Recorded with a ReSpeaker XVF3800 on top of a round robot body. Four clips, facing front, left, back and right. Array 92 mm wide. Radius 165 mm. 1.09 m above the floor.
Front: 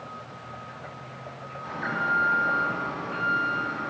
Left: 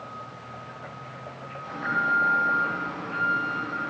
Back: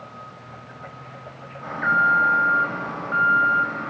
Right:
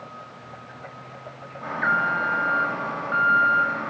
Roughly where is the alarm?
Behind right.